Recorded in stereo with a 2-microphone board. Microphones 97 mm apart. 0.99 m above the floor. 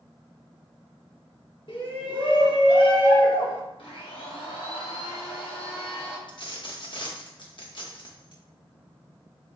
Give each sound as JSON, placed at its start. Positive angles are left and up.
{"t": 1.7, "sound": "a shout", "side_deg": 60, "distance_m": 1.1}
{"t": 3.8, "sound": "a blender", "side_deg": 65, "distance_m": 1.2}
{"t": 6.3, "sound": "a dropped coin", "side_deg": 60, "distance_m": 0.7}